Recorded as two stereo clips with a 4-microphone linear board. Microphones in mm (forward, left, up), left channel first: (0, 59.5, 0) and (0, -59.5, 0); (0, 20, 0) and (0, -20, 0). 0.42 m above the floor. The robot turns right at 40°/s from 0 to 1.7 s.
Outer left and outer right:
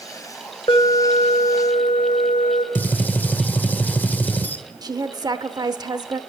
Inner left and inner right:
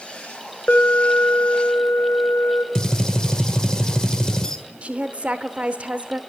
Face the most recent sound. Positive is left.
turn(degrees=-35)  # may be behind; listen again after turning